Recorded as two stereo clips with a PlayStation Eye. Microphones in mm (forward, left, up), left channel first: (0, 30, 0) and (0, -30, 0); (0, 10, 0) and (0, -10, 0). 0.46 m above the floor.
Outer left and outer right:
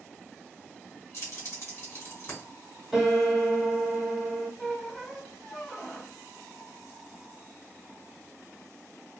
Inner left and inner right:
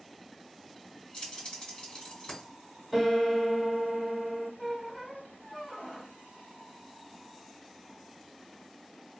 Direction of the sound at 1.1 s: 50° left (ahead or behind).